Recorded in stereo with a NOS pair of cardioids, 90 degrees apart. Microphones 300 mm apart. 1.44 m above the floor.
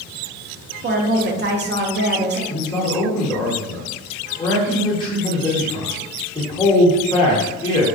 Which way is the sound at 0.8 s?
35° right.